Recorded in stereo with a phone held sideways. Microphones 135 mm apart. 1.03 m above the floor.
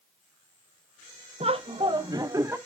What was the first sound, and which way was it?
Laughter, 45° right (ahead or behind).